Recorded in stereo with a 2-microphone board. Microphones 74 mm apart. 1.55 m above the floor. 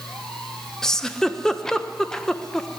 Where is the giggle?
10° left (ahead or behind), 0.6 m.